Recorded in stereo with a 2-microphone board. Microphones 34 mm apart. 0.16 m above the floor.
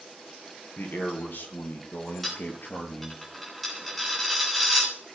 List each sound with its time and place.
0.8 s a man speaking: 60° left (ahead or behind), 3.5 m; by 3.2 s 65° left (ahead or behind), 3.5 m
2.2 s a dropped coin: centre (ahead or behind), 6 m